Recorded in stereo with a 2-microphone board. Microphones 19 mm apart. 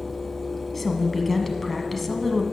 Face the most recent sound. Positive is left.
turn(degrees=10)  # may be behind; listen again after turning